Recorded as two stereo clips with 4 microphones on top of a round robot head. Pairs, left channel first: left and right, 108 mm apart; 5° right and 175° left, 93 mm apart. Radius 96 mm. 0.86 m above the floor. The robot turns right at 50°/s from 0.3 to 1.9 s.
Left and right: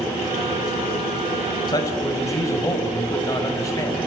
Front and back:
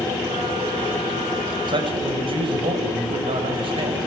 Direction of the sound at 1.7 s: 140° left.